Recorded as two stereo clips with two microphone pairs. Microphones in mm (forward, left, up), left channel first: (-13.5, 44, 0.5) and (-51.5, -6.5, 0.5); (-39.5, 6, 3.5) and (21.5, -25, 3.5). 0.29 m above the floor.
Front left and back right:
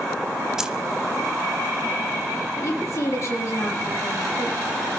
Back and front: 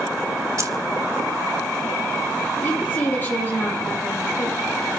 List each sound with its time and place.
0.6 s keys jangling: 50° right, 1.1 m
2.6 s a woman speaking: 90° left, 7.5 m